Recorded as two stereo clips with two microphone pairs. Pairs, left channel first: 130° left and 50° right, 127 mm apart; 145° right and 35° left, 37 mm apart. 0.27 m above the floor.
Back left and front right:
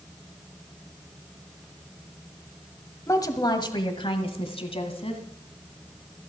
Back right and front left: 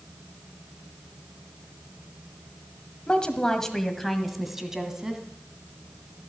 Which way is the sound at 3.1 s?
175° left.